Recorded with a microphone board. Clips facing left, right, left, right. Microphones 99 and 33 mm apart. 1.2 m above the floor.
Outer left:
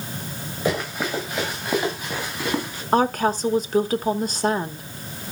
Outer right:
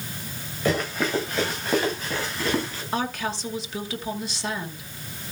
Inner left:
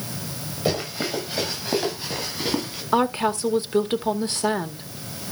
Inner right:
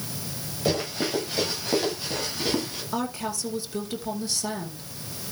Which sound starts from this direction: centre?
Running footsteps, at 0.7 s.